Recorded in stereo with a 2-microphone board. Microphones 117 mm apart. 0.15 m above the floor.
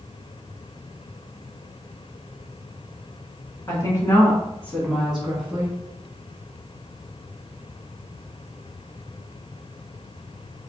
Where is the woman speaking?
35° left (ahead or behind), 1.3 m; by 5.8 s 15° right (ahead or behind), 1.2 m.